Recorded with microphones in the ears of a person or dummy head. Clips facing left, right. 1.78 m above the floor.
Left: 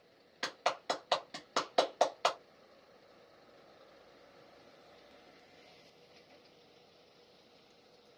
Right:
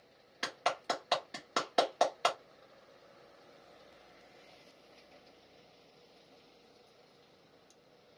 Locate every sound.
0.4 s a clap: 5° right (ahead or behind), 0.8 m